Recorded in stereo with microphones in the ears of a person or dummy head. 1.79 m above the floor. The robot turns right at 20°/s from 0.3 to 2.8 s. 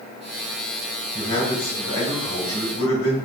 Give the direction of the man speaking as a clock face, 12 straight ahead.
9 o'clock.